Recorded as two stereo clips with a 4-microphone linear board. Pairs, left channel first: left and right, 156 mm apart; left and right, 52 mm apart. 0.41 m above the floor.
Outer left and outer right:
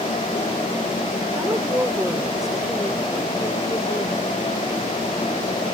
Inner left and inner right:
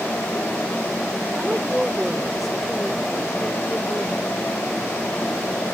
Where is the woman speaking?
20° right (ahead or behind); by 4.2 s 30° left (ahead or behind).